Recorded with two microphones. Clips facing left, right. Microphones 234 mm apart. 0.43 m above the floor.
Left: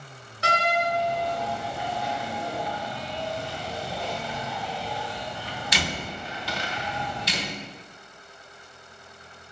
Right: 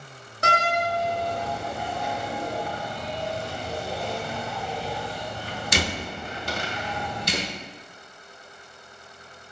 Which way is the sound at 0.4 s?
50° right (ahead or behind).